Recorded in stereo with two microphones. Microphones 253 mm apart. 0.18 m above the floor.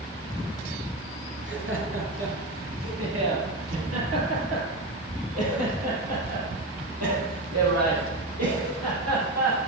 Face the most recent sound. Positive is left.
turn(degrees=-80)